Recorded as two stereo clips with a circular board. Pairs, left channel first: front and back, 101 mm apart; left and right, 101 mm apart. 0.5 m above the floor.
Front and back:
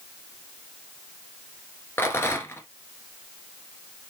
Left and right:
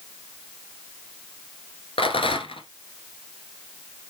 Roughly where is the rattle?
Ahead left.